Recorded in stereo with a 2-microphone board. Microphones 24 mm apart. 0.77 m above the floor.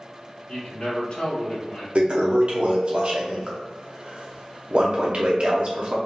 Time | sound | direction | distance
0.5 | a man speaking | 45° left (ahead or behind) | 1.4 m
1.9 | a toilet flushing | 55° right (ahead or behind) | 0.8 m